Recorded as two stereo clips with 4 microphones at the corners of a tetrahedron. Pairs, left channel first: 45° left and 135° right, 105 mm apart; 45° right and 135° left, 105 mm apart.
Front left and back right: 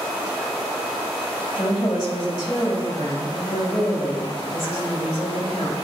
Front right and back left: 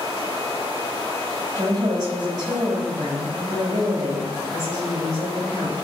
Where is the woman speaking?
85° left, 3.5 m.